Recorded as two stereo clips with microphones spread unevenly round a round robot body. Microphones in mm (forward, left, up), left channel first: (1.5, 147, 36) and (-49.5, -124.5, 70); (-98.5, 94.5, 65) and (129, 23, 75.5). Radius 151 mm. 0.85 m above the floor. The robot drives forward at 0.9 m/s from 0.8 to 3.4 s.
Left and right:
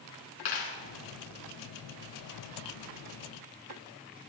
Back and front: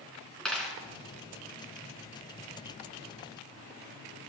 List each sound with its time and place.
0.5 s a dropped coin: 75° left, 3 m